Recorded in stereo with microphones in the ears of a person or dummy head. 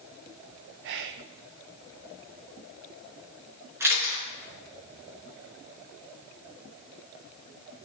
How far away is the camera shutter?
About 5.5 m.